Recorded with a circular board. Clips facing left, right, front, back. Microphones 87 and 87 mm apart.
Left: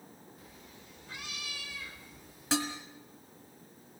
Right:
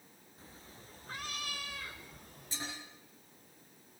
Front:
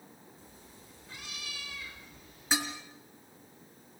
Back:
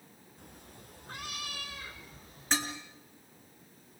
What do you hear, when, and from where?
0.4 s a cat meowing: 150° right, 2.5 m; by 2.7 s 125° right, 3.5 m
2.5 s dishes clattering: 85° left, 3.5 m